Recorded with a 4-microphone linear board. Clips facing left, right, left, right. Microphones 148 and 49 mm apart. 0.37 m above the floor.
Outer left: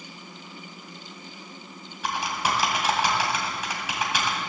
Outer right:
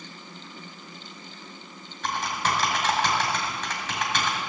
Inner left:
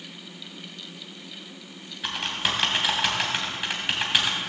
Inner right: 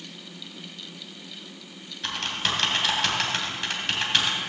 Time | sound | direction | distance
2.0 | typing on a keyboard | 10° left (ahead or behind) | 2.5 m